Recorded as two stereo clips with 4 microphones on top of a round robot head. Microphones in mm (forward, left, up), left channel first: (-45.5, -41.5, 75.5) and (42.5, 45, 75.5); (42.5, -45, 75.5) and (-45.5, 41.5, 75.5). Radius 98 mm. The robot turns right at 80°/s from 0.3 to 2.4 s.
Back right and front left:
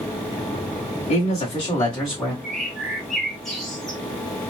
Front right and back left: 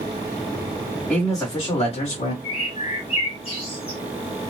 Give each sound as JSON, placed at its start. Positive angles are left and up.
{"t": 1.1, "sound": "a man speaking", "azimuth_deg": -135, "distance_m": 1.9}
{"t": 2.4, "sound": "a bird", "azimuth_deg": -45, "distance_m": 1.8}